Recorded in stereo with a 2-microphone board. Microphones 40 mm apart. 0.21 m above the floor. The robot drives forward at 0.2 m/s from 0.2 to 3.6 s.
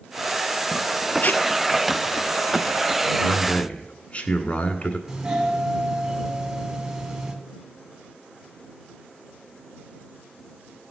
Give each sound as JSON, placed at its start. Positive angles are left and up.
{"t": 1.2, "sound": "tape being pulled", "side_deg": 45, "distance_m": 0.6}
{"t": 3.2, "sound": "a man speaking", "side_deg": 40, "distance_m": 1.7}
{"t": 5.1, "sound": "a doorbell", "side_deg": -15, "distance_m": 2.0}